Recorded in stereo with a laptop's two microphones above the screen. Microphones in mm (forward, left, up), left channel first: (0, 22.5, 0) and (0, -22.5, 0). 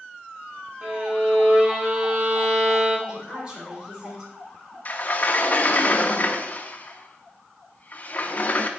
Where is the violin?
30° right (ahead or behind), 1.9 m.